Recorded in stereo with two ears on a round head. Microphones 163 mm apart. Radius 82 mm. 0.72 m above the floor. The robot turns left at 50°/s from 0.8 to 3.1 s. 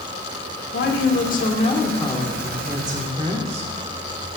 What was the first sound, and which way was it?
A woman speaking, 80° left.